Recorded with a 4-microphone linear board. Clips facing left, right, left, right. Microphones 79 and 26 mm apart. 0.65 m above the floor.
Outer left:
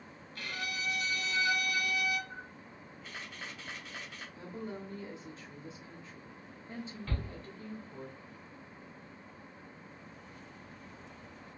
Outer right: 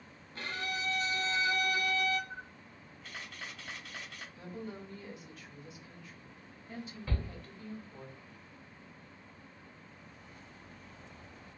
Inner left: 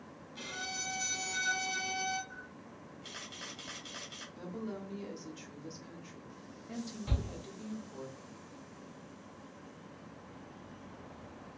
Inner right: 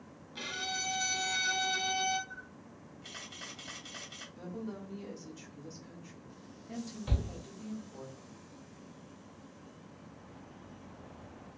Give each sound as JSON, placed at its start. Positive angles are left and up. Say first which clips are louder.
{"t": 0.3, "sound": "a violin", "louder": "outer right 2 dB, inner right 4 dB", "side_deg": -30, "distance_m": 0.7}
{"t": 2.3, "sound": "a camera shutter", "louder": "even, even", "side_deg": 5, "distance_m": 2.0}
{"t": 4.3, "sound": "a woman speaking", "louder": "outer left 2 dB, inner left 1 dB", "side_deg": 30, "distance_m": 1.2}
{"t": 7.1, "sound": "a shout", "louder": "outer right 3 dB, inner right 2 dB", "side_deg": -15, "distance_m": 2.0}